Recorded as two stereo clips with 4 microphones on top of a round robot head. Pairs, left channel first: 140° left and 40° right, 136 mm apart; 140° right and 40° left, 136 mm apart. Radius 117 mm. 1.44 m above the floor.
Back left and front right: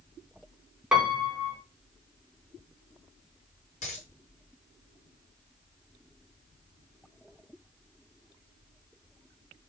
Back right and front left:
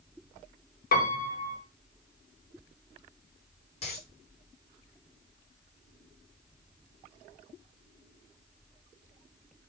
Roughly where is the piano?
Behind right.